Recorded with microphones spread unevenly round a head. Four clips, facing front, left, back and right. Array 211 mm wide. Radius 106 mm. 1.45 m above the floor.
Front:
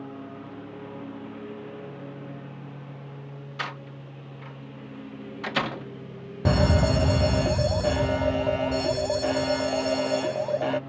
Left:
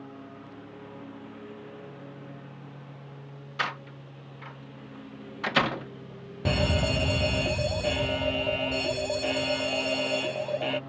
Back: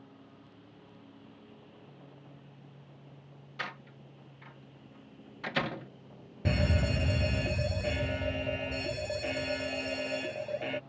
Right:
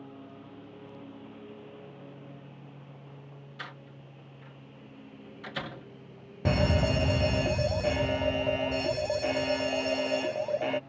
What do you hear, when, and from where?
0.0 s a lawn mower: 10° left; by 10.9 s 30° left
3.6 s a door slam: 75° left
6.5 s a fire alarm: straight ahead